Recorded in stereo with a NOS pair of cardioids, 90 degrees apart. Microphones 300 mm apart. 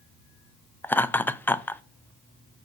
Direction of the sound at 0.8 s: 5° left.